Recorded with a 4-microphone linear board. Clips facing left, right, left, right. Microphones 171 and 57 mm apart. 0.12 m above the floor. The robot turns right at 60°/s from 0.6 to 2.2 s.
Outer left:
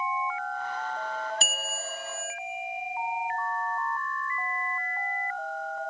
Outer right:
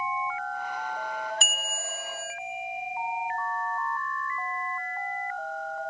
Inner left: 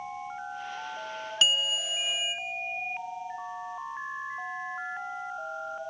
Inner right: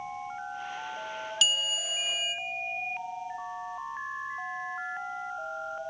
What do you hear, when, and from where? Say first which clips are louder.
1.4 s a bell: outer left 1 dB, inner left 3 dB; 90° left, 0.8 m; by 2.4 s 135° left, 0.8 m